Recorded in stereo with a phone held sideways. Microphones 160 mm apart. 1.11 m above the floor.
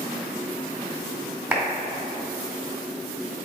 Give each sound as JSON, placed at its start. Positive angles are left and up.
{"t": 1.5, "sound": "a clap", "side_deg": -15, "distance_m": 2.5}